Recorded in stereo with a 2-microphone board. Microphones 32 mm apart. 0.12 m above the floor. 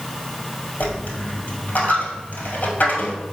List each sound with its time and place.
0.8 s a dropped coin: 55° left (ahead or behind), 1.4 m